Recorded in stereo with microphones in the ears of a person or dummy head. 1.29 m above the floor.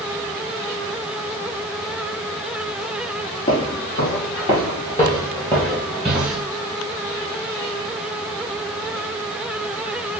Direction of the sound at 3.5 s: 50° left (ahead or behind).